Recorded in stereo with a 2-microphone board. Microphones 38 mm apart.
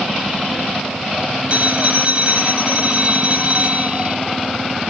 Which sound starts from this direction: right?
A phone ringing, at 1.5 s.